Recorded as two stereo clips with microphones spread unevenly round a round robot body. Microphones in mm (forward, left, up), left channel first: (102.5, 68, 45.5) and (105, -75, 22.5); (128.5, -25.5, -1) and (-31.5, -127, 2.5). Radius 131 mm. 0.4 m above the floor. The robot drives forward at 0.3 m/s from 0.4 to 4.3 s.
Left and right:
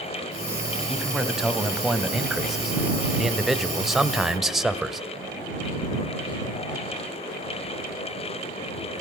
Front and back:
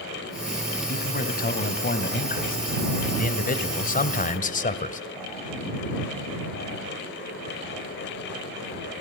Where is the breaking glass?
I don't hear breaking glass.